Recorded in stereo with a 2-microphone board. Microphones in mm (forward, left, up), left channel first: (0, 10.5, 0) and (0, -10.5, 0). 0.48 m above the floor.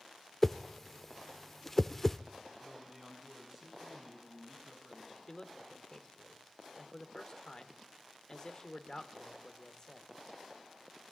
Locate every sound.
0.4 s a whoosh: 15° left (ahead or behind), 0.5 m
2.6 s a man speaking: 15° right (ahead or behind), 5.5 m
5.3 s a man speaking: 35° left (ahead or behind), 1.6 m